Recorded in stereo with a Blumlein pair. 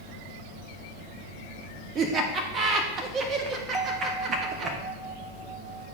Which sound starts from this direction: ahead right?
Laughter, at 1.9 s.